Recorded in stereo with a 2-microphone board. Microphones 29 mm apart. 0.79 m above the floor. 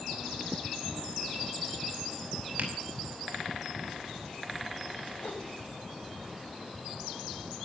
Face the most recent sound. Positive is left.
turn(degrees=60)  # may be behind; listen again after turning